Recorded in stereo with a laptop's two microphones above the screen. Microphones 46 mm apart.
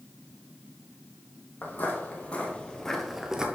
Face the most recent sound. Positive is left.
turn(degrees=-20)  # may be behind; listen again after turning